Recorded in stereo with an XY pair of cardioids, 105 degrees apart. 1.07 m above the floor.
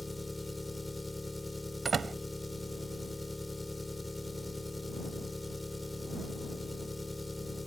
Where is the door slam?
45° right.